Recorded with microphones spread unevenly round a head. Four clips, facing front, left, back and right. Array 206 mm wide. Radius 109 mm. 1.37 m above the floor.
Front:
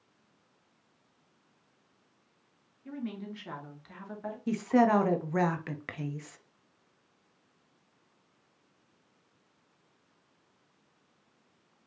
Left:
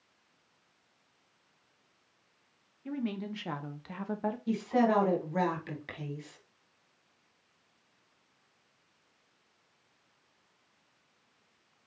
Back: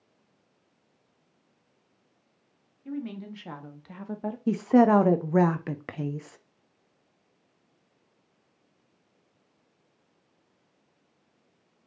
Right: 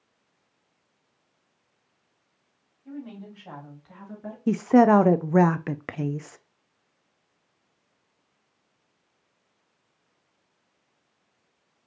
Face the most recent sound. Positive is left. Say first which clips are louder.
# right 11 dB, back 5 dB
turn(degrees=-95)